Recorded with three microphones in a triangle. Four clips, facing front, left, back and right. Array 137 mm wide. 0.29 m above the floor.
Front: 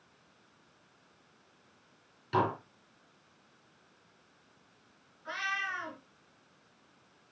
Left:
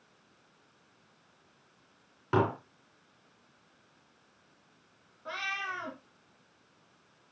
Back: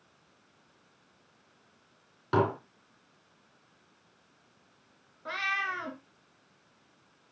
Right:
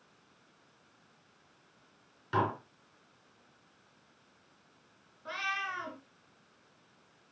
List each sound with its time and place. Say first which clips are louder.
2.3 s dishes clattering: left 3 dB, back 3 dB; 140° left, 3.5 m
5.2 s a cat meowing: even, back 3 dB; straight behind, 2 m